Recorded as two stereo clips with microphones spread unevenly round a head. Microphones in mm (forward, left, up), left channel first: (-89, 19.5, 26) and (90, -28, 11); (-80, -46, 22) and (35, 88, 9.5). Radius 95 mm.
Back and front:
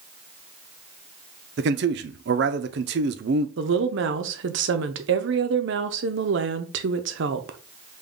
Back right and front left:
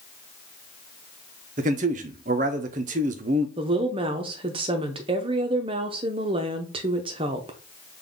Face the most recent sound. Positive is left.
turn(degrees=-15)